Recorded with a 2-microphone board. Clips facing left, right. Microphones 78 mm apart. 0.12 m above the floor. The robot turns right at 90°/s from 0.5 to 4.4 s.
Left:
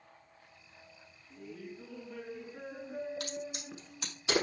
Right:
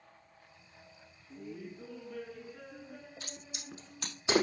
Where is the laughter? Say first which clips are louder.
Right 1 dB; 20° right (ahead or behind), 1.2 m; by 4.2 s 10° right (ahead or behind), 1.2 m.